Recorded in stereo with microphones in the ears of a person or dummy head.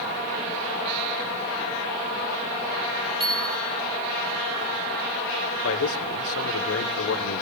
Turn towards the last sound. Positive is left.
turn(degrees=80)